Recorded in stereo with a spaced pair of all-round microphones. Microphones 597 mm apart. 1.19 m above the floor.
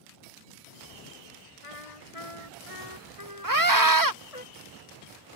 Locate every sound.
1.6 s a trumpet: 65° left (ahead or behind)
3.4 s a scream: 35° right (ahead or behind)